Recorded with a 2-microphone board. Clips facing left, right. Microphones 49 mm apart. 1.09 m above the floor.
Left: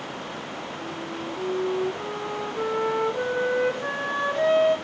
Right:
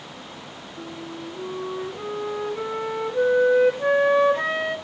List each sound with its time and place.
0.8 s a flute: 25° right (ahead or behind), 0.7 m